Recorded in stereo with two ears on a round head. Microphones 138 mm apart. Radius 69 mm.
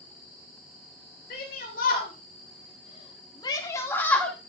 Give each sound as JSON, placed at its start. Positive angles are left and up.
{"t": 1.3, "sound": "a shout", "side_deg": 60, "distance_m": 2.5}